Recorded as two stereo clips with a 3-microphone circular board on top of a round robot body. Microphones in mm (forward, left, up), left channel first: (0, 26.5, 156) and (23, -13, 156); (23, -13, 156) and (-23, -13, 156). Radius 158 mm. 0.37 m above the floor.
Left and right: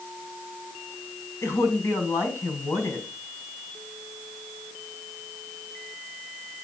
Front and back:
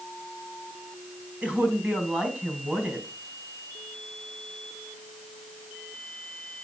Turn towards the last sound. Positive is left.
turn(degrees=120)